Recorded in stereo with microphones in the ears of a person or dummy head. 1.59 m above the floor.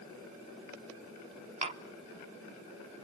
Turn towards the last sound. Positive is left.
turn(degrees=-40)  # may be behind; listen again after turning